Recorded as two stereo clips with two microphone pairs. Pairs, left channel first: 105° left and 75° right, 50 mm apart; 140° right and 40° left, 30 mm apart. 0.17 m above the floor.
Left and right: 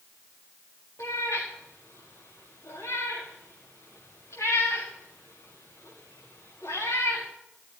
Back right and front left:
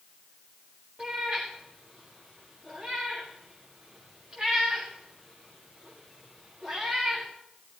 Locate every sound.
1.0 s a cat meowing: 90° left, 5.5 m